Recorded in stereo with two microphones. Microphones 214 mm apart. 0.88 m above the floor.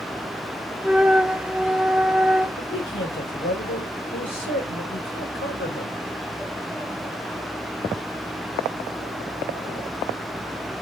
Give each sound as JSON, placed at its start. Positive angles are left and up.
{"t": 0.8, "sound": "a flute", "side_deg": -5, "distance_m": 0.8}
{"t": 2.6, "sound": "a man speaking", "side_deg": 70, "distance_m": 4.0}